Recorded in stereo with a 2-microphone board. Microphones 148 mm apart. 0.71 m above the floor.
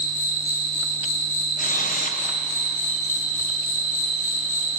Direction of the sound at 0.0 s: 60° left (ahead or behind).